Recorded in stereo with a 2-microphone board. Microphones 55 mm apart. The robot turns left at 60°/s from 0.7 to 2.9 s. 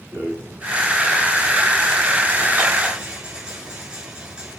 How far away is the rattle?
About 7.5 m.